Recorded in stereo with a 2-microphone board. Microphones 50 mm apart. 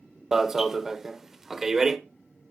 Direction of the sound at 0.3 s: 10° right (ahead or behind).